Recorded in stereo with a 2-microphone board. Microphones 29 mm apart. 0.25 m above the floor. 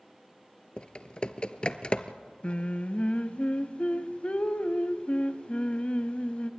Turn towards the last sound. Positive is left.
turn(degrees=45)  # may be behind; listen again after turning